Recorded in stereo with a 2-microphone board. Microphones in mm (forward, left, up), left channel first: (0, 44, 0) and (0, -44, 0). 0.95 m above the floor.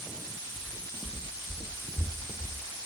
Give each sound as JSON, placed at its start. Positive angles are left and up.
{"t": 0.6, "sound": "footsteps", "side_deg": -5, "distance_m": 2.5}